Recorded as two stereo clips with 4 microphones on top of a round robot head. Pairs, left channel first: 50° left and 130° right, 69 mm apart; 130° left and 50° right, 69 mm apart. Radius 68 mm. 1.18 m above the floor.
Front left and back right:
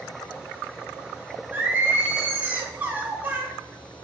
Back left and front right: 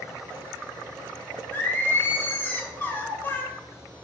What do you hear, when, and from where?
1.5 s singing: 175° left, 0.6 m